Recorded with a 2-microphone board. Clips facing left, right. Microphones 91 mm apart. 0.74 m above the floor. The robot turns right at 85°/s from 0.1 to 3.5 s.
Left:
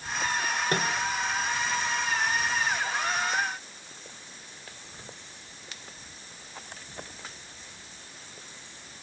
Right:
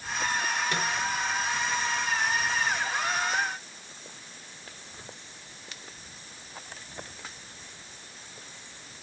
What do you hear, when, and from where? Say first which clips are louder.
0.7 s a microwave: left 2 dB; 40° left (ahead or behind), 1.4 m; by 0.9 s 60° left (ahead or behind), 1.4 m